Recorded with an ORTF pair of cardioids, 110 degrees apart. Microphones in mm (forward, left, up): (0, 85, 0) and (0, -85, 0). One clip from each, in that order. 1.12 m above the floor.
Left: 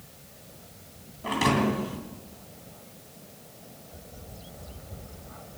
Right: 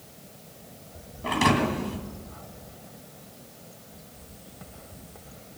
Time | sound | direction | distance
1.2 | a thud | 10° right | 2.5 m